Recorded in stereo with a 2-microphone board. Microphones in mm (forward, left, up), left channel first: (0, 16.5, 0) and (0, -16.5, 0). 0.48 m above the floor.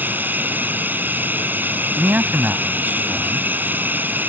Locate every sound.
0.0 s running water: 70° right (ahead or behind)
2.0 s a man speaking: 65° right (ahead or behind)